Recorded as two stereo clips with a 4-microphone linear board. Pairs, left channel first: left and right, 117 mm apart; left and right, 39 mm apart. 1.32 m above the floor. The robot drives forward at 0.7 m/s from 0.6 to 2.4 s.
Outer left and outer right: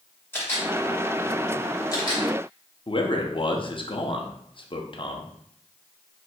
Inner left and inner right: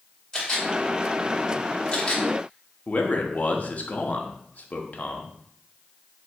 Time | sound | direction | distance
0.3 | a camera shutter | 20° left (ahead or behind) | 1.9 m
2.9 | a man speaking | 45° left (ahead or behind) | 0.6 m